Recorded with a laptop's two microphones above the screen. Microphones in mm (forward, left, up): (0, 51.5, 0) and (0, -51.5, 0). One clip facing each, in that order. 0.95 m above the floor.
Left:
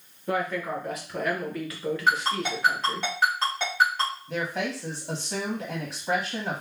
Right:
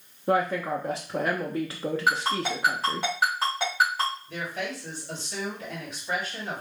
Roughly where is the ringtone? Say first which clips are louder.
Left 1 dB; centre.